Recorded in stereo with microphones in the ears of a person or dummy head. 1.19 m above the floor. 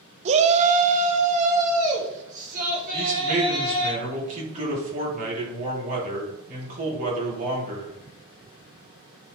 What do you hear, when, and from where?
0.2 s a shout: 35° right (ahead or behind), 0.6 m; by 3.9 s 45° right (ahead or behind), 4.5 m
2.9 s a man speaking: 45° right (ahead or behind), 3.5 m